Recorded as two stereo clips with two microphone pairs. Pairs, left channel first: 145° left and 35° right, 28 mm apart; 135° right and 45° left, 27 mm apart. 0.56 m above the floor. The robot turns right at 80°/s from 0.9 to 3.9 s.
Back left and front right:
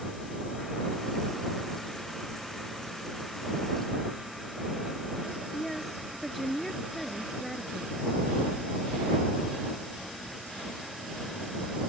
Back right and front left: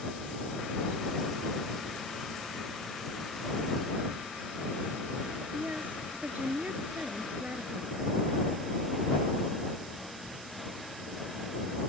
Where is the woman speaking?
60° left.